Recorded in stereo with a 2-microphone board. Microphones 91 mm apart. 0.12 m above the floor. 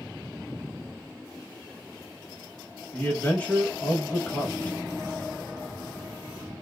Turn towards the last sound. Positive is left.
turn(degrees=15)  # may be behind; listen again after turning